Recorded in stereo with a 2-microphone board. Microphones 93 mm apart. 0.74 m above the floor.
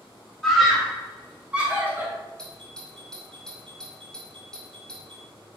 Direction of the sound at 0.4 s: 5° left (ahead or behind).